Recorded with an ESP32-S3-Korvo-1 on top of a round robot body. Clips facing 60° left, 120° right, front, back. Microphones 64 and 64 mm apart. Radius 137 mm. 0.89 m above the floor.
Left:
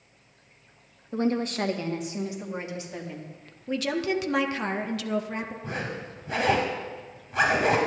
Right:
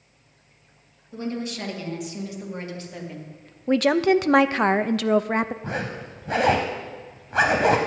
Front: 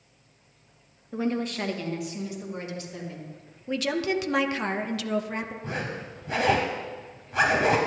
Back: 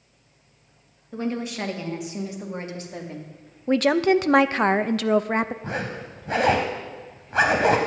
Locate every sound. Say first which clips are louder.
1.1 s a woman speaking: left 4 dB, even; 85° left, 1.6 m; by 3.3 s 145° left, 2.5 m
3.7 s a woman speaking: right 9 dB, back 8 dB; 145° right, 0.6 m
5.6 s a zipper: right 3 dB, back 3 dB; 140° right, 0.8 m